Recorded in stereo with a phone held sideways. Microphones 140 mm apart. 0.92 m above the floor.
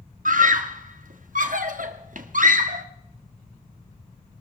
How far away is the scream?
About 1.4 m.